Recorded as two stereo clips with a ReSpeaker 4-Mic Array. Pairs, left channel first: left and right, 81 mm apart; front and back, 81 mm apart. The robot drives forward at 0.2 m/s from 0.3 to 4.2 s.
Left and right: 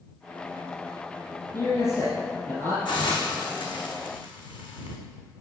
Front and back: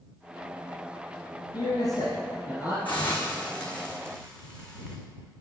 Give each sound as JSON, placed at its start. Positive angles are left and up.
{"t": 1.5, "sound": "a man speaking", "azimuth_deg": 40, "distance_m": 3.5}
{"t": 2.9, "sound": "a hiss", "azimuth_deg": 70, "distance_m": 2.0}